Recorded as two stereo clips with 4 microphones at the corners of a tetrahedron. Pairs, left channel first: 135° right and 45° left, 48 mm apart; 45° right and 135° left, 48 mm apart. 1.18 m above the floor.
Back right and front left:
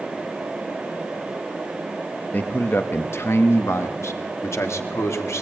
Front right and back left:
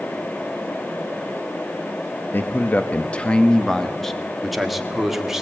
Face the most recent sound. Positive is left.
turn(degrees=-145)